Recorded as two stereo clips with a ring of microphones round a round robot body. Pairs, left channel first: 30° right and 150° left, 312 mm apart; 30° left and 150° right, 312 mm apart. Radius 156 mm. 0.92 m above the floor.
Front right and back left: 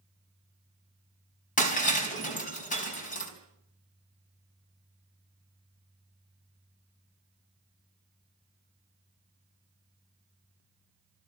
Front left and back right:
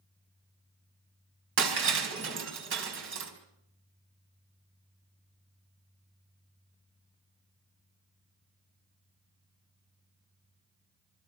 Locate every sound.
1.6 s breaking glass: 95° right, 4 m